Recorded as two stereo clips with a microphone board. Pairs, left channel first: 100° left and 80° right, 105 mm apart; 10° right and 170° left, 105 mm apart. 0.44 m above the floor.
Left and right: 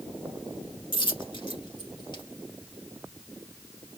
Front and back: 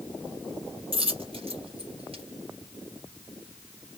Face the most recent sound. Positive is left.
turn(degrees=140)